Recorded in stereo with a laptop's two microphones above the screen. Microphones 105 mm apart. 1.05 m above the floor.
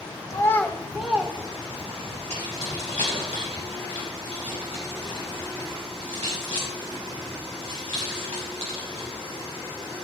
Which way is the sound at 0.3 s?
30° left (ahead or behind).